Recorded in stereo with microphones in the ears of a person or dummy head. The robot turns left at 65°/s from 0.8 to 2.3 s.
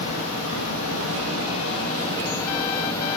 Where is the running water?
120° left, 1.2 m; by 3.2 s 20° left, 1.2 m.